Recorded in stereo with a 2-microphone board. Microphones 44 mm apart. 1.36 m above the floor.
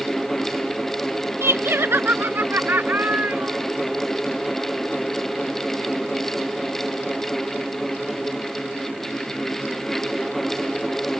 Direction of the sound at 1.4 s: 80° right.